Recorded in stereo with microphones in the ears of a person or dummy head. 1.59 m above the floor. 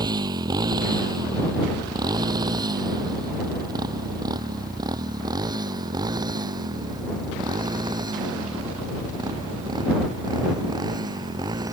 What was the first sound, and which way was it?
A motorcycle, 25° right (ahead or behind).